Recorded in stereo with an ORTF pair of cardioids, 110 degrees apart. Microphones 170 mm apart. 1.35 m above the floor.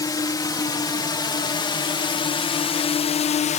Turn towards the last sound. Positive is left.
turn(degrees=50)